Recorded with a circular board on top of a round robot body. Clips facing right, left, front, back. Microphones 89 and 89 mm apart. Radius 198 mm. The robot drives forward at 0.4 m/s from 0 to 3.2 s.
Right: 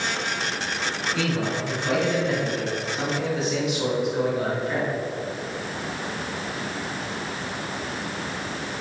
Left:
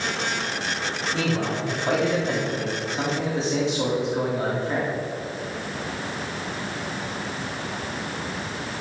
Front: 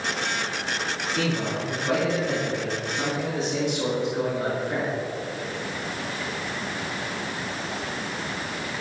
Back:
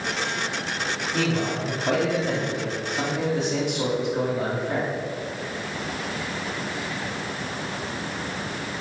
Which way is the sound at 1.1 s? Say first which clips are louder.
Left 1 dB, back 2 dB; 140° left.